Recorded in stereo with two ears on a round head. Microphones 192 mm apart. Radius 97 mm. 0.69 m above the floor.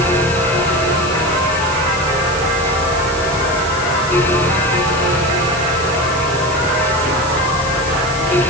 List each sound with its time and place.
Only background noise.